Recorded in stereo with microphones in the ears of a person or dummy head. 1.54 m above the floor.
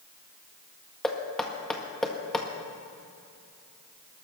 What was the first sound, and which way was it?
Knocking, 5° left (ahead or behind).